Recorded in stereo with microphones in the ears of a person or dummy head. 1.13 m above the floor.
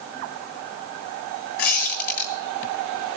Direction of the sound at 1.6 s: 45° left (ahead or behind).